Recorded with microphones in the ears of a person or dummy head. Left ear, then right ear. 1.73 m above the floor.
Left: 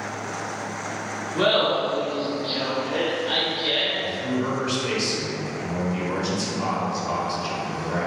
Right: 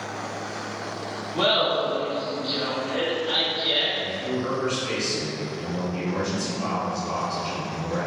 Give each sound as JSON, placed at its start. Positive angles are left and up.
{"t": 1.3, "sound": "laughter", "side_deg": 0, "distance_m": 0.6}
{"t": 4.0, "sound": "a man speaking", "side_deg": 60, "distance_m": 1.7}